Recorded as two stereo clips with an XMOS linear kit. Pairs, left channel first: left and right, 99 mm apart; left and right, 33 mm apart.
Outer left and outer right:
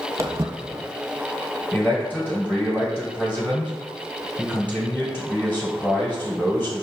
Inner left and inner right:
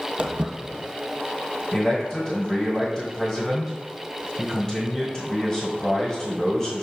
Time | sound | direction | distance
0.2 | footsteps | 30° right (ahead or behind) | 0.6 m
1.7 | a man speaking | 15° left (ahead or behind) | 1.4 m